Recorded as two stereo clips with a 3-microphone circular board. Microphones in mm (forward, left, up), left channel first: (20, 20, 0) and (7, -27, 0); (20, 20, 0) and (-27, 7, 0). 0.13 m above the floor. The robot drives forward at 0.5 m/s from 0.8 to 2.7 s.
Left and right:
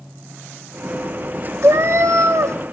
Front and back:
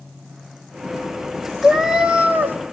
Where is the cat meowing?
75° right, 0.6 m; by 2.6 s 120° right, 0.7 m.